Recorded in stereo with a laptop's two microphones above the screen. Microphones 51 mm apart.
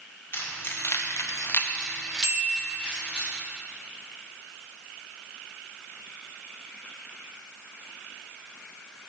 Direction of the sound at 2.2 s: 60° right (ahead or behind).